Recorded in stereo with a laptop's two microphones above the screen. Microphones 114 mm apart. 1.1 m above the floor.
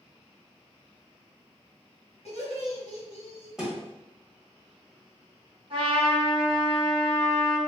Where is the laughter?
70° left (ahead or behind), 1.2 m.